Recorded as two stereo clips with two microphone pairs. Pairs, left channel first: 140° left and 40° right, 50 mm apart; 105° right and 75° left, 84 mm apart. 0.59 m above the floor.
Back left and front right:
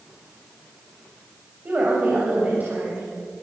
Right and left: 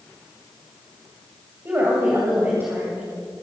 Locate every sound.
1.6 s a woman speaking: 15° left, 2.5 m